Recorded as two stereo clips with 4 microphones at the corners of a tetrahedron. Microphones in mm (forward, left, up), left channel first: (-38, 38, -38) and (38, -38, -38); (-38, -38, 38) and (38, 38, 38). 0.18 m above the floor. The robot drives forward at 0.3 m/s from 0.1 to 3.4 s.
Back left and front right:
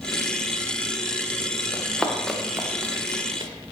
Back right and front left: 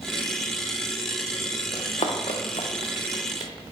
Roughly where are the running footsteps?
Behind right.